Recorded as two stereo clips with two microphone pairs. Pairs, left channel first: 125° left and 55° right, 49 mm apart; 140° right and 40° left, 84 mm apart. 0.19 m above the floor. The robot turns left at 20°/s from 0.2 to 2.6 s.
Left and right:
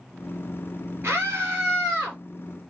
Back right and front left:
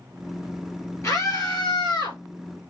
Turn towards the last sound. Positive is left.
turn(degrees=-125)